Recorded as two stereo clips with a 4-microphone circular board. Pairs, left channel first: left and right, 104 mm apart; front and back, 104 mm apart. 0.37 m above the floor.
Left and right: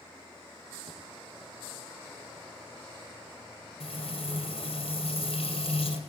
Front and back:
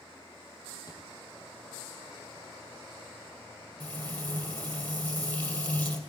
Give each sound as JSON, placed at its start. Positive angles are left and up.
{"t": 0.9, "sound": "a thud", "azimuth_deg": -50, "distance_m": 2.5}
{"t": 3.8, "sound": "frying", "azimuth_deg": 70, "distance_m": 2.5}